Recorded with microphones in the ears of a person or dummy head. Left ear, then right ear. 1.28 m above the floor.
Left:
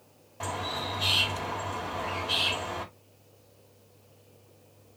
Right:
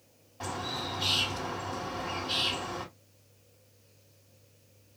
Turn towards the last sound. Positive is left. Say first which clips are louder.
# left 2 dB
turn(degrees=10)  # may be behind; listen again after turning